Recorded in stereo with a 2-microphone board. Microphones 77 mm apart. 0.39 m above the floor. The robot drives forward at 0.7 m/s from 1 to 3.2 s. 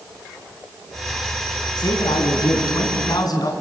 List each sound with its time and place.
1.8 s a man speaking: 70° left (ahead or behind), 3.5 m; by 3.5 s 60° left (ahead or behind), 4 m